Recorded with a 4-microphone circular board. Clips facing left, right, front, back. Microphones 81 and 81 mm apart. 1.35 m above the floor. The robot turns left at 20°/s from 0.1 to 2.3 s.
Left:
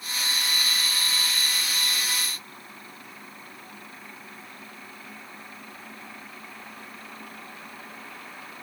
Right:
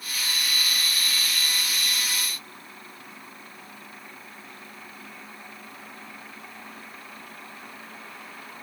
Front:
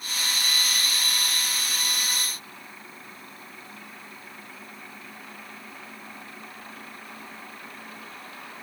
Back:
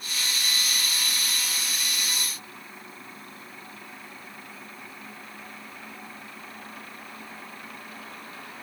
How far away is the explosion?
No explosion in this recording.